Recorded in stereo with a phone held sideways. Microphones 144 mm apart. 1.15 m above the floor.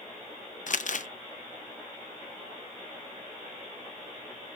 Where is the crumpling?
60° left (ahead or behind), 0.5 m.